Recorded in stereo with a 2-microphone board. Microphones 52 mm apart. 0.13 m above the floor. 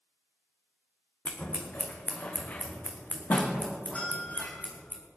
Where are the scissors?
35° left (ahead or behind), 1.8 m.